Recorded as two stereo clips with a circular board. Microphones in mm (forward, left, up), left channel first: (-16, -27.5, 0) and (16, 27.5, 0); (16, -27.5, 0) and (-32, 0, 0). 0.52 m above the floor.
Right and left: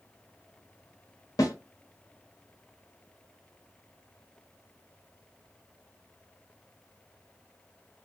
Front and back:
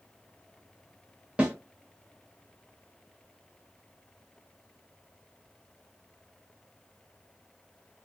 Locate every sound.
1.4 s a snare drum: 140° right, 1.1 m